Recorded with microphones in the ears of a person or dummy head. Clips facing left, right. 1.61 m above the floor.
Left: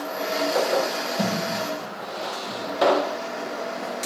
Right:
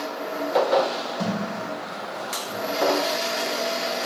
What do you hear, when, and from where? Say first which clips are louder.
1.2 s a thud: left 3 dB; 50° left (ahead or behind), 2.0 m